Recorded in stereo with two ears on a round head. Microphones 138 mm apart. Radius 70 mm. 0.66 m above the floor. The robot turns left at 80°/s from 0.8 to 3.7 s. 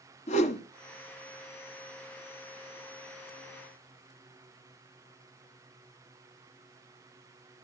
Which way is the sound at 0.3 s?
50° left (ahead or behind).